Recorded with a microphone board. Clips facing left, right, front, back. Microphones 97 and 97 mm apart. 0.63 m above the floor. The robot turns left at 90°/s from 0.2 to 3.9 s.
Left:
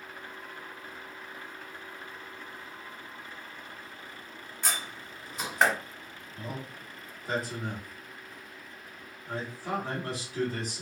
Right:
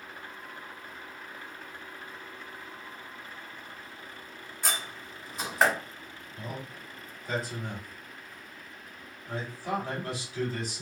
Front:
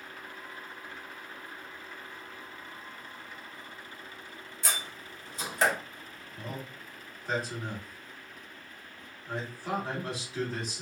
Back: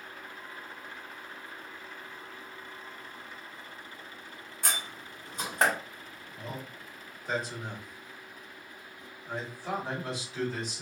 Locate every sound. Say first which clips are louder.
4.6 s a door slam: right 1 dB, back 1 dB; 175° right, 1.3 m
6.4 s a man speaking: even, even; 85° left, 1.8 m